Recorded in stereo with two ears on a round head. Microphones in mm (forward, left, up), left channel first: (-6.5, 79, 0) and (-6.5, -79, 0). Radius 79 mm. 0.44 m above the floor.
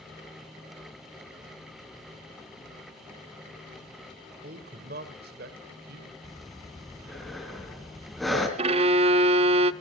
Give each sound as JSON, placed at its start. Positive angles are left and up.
{"t": 4.4, "sound": "a man speaking", "side_deg": -50, "distance_m": 1.9}
{"t": 6.2, "sound": "breathing", "side_deg": 0, "distance_m": 3.0}
{"t": 8.6, "sound": "a violin", "side_deg": -35, "distance_m": 0.5}